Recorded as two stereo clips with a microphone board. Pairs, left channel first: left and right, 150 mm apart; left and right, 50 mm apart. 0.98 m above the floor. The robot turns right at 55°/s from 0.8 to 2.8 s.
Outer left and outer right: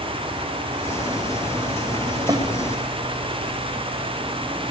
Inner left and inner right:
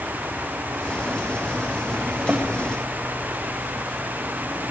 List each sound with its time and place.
2.3 s a snare drum: 25° right (ahead or behind), 4 m; by 2.5 s 35° right (ahead or behind), 4 m